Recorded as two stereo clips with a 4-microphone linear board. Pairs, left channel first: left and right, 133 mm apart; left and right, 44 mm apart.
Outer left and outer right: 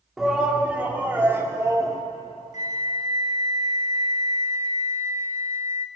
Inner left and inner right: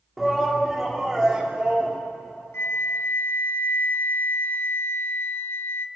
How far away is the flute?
About 1.0 m.